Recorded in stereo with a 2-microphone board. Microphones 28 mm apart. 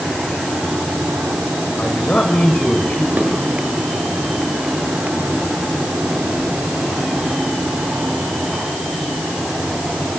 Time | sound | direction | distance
1.8 | a man speaking | 45° left (ahead or behind) | 4 m
3.2 | dishes clattering | 90° right | 8 m